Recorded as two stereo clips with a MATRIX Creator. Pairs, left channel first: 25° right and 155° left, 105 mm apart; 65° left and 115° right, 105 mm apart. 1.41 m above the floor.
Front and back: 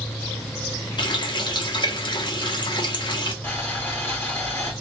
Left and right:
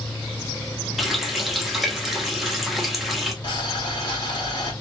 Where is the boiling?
40° left, 1.2 m.